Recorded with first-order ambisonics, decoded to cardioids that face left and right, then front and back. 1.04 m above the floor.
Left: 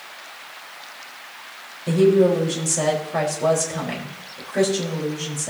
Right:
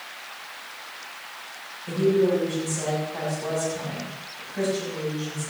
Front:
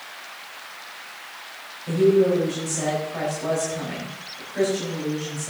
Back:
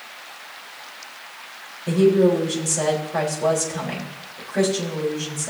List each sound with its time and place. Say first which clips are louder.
1.9 s a woman speaking: left 5 dB, back 1 dB; 115° left, 4.5 m